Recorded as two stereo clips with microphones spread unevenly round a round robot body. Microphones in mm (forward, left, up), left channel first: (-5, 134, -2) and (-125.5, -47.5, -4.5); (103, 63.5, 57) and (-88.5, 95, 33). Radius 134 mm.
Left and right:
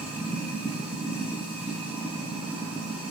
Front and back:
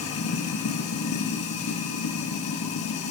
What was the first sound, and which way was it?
Running water, 35° right.